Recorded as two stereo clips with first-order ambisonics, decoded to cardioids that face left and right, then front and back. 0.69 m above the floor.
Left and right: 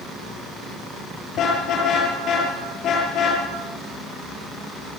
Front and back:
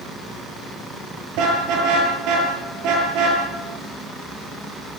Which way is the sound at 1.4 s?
145° left.